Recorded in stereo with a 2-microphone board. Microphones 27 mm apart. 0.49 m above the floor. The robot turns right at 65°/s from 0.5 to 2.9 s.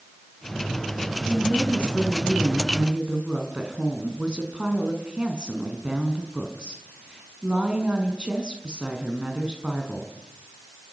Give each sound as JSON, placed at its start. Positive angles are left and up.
{"t": 1.3, "sound": "a woman speaking", "azimuth_deg": 110, "distance_m": 6.0}